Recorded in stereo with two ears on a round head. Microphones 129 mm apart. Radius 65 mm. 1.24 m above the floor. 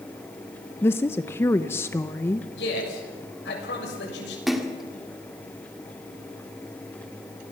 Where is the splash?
Centre (ahead or behind), 2 m.